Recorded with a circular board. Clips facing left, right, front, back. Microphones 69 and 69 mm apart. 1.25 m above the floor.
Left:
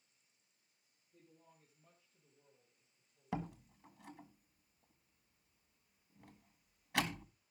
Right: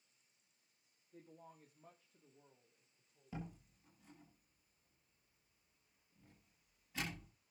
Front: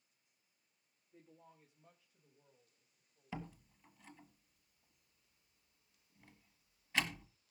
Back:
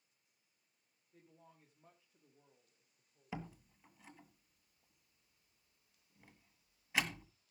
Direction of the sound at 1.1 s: 85° right.